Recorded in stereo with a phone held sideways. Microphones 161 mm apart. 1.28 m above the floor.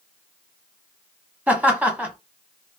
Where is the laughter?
10° right (ahead or behind), 1.1 m.